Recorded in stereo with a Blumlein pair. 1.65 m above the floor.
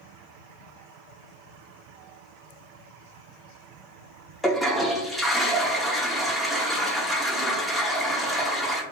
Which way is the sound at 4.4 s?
Straight ahead.